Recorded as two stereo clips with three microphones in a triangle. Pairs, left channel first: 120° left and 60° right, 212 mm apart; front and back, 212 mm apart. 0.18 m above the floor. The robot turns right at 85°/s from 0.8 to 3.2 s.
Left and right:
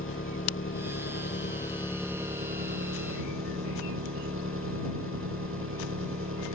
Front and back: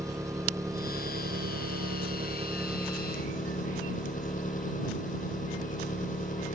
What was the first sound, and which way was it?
An engine running, 105° left.